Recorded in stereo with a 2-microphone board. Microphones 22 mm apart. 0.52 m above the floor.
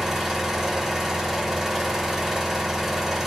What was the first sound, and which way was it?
An engine running, 15° right (ahead or behind).